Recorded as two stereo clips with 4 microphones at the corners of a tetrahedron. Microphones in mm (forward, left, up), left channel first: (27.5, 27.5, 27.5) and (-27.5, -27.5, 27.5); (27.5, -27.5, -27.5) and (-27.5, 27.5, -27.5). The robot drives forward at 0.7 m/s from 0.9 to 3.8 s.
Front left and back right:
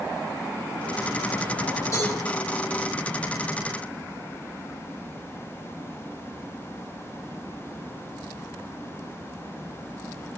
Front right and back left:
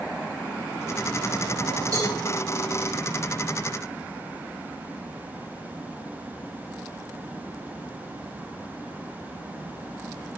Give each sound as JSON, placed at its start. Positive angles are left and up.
{"t": 1.9, "sound": "a cowbell", "azimuth_deg": 95, "distance_m": 7.5}